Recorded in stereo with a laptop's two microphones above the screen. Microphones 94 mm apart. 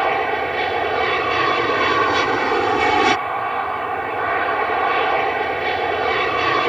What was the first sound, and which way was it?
An aircraft, centre (ahead or behind).